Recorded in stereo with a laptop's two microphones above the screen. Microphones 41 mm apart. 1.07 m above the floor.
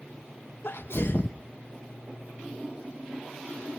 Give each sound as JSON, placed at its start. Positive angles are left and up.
{"t": 0.6, "sound": "a sneeze", "side_deg": 70, "distance_m": 1.0}